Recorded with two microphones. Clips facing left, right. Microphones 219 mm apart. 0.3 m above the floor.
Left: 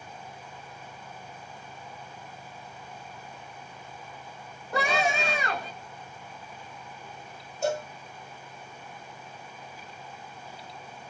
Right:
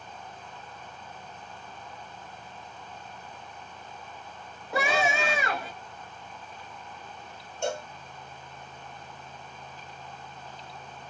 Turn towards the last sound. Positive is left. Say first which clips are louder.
# left 3 dB
turn(degrees=5)  # may be behind; listen again after turning